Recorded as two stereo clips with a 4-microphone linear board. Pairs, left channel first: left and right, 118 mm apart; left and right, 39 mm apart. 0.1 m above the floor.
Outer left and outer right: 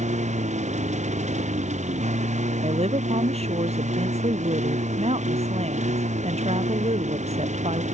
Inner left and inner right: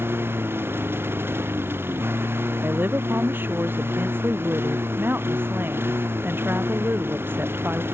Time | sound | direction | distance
0.0 | a lawn mower | 85° right | ?
2.6 | a woman speaking | 65° right (ahead or behind) | ?